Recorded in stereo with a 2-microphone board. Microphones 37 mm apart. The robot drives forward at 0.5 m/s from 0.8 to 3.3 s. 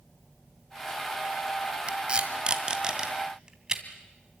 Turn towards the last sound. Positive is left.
turn(degrees=-20)  # may be behind; listen again after turning